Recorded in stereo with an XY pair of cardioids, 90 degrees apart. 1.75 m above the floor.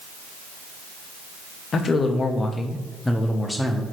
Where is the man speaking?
55° left, 1.3 m; by 3.8 s 5° left, 1.5 m.